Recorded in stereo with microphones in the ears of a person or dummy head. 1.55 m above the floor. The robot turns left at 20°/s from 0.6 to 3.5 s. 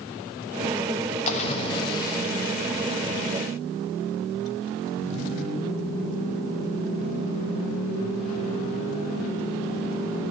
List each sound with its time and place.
1.3 s a splash: 35° left (ahead or behind), 0.8 m; by 2.2 s 20° left (ahead or behind), 0.8 m